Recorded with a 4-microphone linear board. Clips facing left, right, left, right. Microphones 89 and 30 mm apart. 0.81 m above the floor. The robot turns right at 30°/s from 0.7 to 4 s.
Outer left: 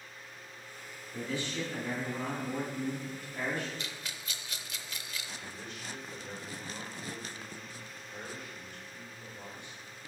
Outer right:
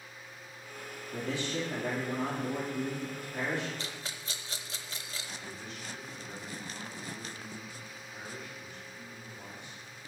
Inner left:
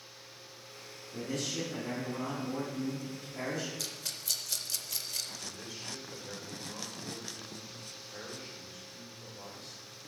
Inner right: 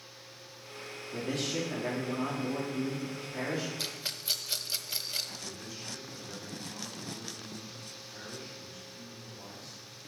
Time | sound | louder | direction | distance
1.1 | a man speaking | outer right 2 dB, inner right 3 dB | 100° right | 2 m
3.8 | a rattle | outer right 1 dB, inner right 3 dB | 30° right (ahead or behind) | 0.5 m
5.4 | a man speaking | outer right 1 dB, inner right 1 dB | 55° left (ahead or behind) | 3.5 m